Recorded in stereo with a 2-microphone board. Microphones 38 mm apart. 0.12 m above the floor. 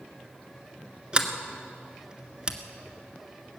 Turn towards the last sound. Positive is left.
turn(degrees=-25)  # may be behind; listen again after turning